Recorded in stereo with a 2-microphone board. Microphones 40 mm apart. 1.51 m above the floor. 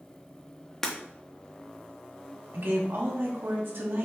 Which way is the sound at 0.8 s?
15° left (ahead or behind).